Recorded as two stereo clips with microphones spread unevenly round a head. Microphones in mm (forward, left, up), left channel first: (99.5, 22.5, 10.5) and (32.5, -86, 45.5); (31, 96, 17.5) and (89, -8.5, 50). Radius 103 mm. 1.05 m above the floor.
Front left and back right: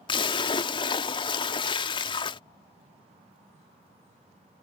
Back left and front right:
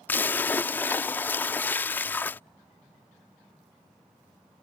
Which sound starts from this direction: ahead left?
A splash, at 0.1 s.